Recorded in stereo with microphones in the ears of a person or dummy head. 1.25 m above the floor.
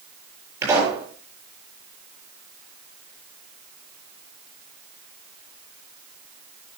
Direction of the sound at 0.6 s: 10° right (ahead or behind).